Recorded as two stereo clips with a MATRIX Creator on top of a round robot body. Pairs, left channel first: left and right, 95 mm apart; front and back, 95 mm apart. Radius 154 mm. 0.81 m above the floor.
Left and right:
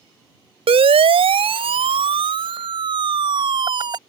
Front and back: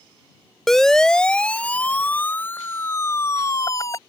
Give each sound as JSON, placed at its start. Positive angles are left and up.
{"t": 0.7, "sound": "a siren", "azimuth_deg": -85}